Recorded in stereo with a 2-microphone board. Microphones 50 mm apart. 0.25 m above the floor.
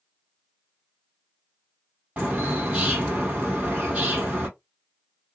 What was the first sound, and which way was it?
A bird, 30° right (ahead or behind).